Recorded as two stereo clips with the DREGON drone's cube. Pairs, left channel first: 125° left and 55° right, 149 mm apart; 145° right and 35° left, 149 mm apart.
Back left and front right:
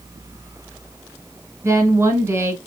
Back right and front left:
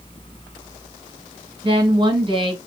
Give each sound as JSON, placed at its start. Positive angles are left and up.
{"t": 1.6, "sound": "a woman speaking", "azimuth_deg": 5, "distance_m": 1.3}